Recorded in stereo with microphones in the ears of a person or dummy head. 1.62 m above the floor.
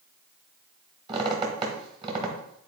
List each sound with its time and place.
1.1 s a squeak: 30° right (ahead or behind), 1.5 m